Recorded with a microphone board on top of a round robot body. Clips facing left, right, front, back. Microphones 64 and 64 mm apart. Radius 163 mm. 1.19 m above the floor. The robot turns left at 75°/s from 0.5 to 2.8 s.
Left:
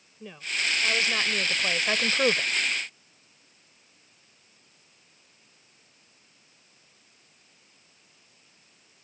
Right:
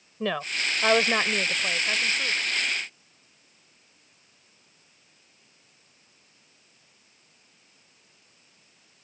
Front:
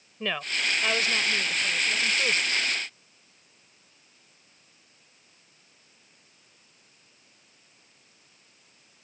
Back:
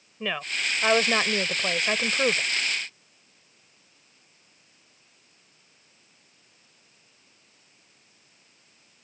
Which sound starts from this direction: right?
A woman speaking, at 0.2 s.